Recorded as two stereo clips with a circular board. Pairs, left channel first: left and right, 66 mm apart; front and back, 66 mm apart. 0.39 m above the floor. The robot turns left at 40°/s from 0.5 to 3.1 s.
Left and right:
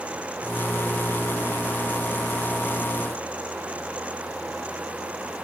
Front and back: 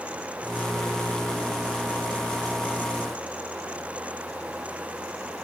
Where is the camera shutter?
No camera shutter in this recording.